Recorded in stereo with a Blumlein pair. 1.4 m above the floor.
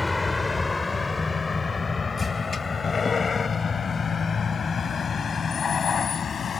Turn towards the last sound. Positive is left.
turn(degrees=20)